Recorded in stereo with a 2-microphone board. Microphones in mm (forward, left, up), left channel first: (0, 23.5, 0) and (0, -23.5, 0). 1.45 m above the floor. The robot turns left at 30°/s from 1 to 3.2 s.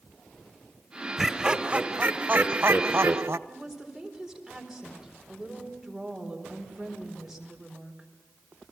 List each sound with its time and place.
1.2 s laughter: 10° right, 0.9 m; by 3.4 s 70° right, 0.9 m
3.5 s a woman speaking: 5° right (ahead or behind), 4.5 m